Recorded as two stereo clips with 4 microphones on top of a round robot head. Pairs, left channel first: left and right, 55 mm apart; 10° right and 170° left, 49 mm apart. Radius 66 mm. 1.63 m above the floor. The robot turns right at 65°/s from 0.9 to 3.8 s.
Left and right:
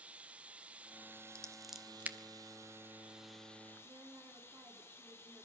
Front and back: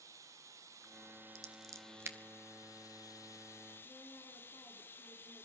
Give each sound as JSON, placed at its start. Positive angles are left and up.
{"t": 0.0, "sound": "running water", "azimuth_deg": -160, "distance_m": 0.9}
{"t": 1.4, "sound": "scissors", "azimuth_deg": 160, "distance_m": 2.0}
{"t": 3.8, "sound": "a woman speaking", "azimuth_deg": -50, "distance_m": 4.5}